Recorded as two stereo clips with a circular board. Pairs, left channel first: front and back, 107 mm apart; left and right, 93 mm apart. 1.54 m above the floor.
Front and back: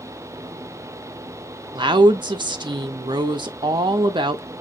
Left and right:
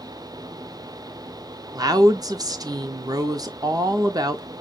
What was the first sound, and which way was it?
A woman speaking, 135° right.